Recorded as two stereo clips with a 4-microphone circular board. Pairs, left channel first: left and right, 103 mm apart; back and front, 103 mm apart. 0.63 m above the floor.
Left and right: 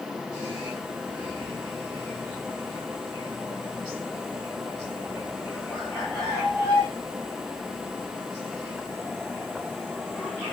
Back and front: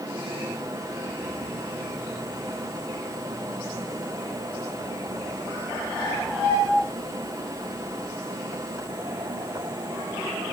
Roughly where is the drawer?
I don't hear a drawer.